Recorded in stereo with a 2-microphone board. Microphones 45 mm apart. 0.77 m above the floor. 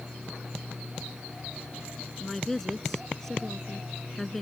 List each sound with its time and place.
2.2 s a woman speaking: 5° left (ahead or behind)